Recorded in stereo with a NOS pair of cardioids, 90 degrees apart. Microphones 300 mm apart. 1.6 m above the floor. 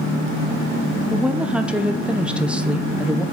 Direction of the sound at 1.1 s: 5° right.